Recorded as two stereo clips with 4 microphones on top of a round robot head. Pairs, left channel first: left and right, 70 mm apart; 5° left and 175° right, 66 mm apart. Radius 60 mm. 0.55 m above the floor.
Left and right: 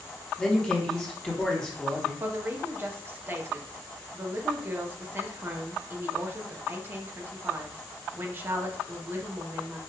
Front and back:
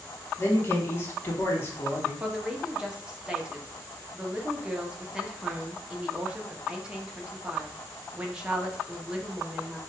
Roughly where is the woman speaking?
Right.